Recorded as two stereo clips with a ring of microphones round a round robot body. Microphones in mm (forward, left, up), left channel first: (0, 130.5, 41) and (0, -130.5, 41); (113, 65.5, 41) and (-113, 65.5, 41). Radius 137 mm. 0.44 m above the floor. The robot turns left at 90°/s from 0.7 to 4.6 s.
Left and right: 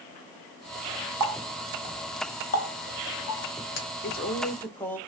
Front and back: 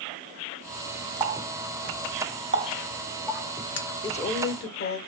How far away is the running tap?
About 1.3 m.